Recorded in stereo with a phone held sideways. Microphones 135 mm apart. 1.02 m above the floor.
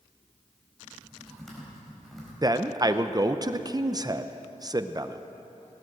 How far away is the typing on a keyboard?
About 4.5 m.